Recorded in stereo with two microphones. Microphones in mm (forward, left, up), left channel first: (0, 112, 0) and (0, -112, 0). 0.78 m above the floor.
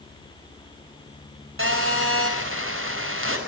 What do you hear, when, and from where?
1.6 s a phone buzzing: 70° right (ahead or behind), 5 m